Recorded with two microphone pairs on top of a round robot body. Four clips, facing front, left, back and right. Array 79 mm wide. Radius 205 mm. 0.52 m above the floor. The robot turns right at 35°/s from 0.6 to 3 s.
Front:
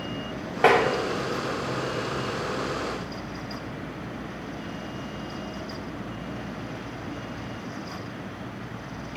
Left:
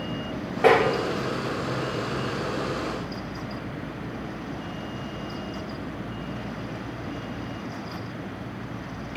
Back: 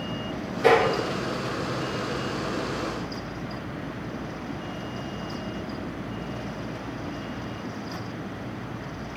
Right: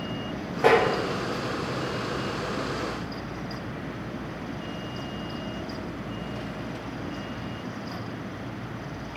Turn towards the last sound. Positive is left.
turn(degrees=85)